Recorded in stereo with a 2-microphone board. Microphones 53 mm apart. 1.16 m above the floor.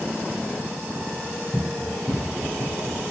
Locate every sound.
1.5 s running footsteps: 30° right (ahead or behind), 9.5 m; by 3.0 s 35° right (ahead or behind), 10 m